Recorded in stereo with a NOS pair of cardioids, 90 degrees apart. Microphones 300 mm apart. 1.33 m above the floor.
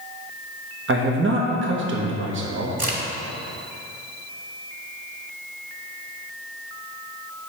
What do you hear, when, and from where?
0.9 s a man speaking: 40° right, 1.2 m
2.8 s a crack: 25° right, 2 m